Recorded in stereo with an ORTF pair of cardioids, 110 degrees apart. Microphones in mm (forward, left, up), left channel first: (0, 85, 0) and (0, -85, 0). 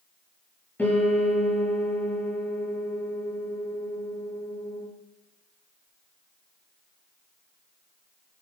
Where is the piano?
10° left, 7 m.